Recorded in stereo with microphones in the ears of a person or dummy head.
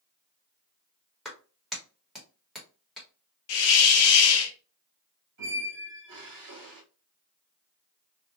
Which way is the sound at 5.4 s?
70° right (ahead or behind).